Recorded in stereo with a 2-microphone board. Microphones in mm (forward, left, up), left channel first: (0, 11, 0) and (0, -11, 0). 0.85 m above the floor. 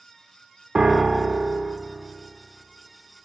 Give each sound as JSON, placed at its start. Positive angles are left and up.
{"t": 0.8, "sound": "a piano", "side_deg": -30, "distance_m": 0.5}